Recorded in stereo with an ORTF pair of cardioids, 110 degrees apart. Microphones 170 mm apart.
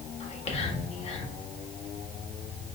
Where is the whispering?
40° left, 1.4 m.